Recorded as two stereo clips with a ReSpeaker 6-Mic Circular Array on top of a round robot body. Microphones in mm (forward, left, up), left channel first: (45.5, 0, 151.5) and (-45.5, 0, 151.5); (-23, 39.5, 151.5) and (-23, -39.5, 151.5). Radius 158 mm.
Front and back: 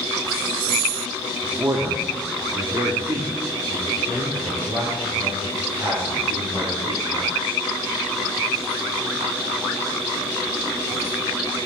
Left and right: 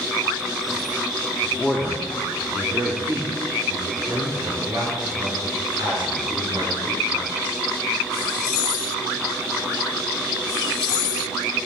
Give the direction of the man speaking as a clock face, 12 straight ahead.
7 o'clock.